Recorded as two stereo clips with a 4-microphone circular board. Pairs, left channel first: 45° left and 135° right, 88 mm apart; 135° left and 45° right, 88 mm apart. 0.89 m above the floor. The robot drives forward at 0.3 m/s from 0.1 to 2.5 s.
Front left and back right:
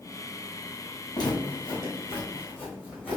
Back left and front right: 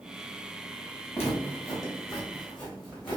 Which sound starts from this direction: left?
Footsteps, at 1.1 s.